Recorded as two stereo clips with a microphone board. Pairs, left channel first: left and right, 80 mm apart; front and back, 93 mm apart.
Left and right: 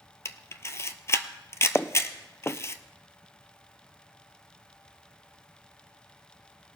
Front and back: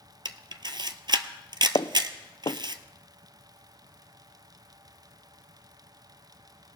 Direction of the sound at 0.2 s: 145° left.